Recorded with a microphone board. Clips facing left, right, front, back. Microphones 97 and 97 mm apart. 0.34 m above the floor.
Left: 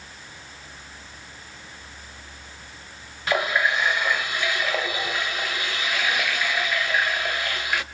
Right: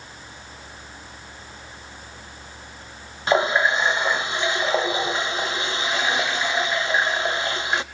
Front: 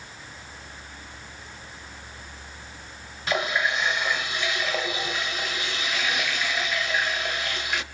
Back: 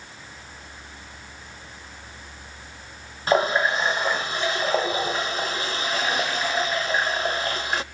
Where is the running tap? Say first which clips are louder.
Right 4 dB, back 5 dB; 145° right, 0.7 m.